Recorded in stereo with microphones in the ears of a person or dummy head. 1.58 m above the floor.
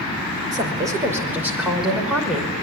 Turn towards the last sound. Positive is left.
turn(degrees=0)  # may be behind; listen again after turning